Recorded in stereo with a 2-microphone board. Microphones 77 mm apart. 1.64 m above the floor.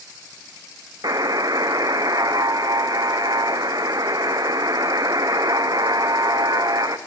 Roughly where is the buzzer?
Right.